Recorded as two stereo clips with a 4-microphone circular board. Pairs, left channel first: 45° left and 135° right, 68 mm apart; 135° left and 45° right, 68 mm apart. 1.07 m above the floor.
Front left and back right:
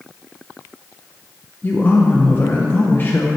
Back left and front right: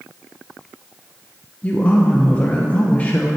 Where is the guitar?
No guitar in this recording.